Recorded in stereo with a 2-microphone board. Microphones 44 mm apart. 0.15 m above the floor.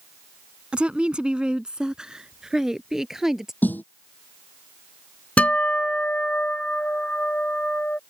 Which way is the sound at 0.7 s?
25° right (ahead or behind).